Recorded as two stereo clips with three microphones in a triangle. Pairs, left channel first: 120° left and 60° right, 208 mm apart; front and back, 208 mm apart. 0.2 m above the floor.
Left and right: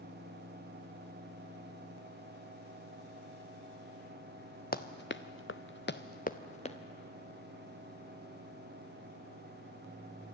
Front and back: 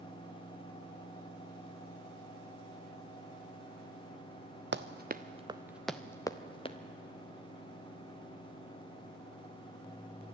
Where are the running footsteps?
160° left, 1.2 m; by 6.8 s 60° left, 1.7 m.